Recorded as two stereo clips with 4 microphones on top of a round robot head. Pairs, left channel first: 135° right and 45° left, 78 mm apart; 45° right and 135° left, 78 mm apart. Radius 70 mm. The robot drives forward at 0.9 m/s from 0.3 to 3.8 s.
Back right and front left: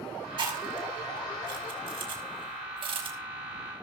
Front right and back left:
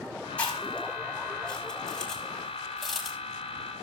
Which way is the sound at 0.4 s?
25° left.